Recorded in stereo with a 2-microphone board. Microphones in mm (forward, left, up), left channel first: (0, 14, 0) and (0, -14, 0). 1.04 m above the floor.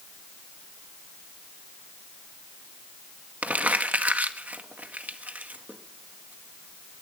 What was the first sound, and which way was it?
Crumpling, 65° right (ahead or behind).